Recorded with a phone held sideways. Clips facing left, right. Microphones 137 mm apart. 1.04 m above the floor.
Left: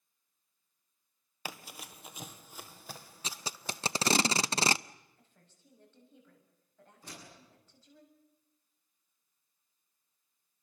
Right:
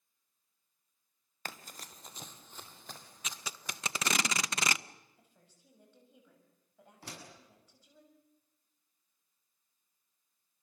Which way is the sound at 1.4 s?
10° left (ahead or behind).